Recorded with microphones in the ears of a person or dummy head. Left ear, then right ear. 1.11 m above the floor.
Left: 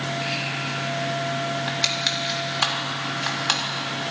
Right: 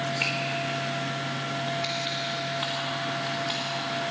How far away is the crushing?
About 3.5 m.